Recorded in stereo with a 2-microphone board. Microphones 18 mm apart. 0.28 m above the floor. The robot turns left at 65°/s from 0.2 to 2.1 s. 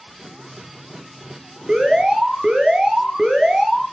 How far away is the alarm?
About 6 m.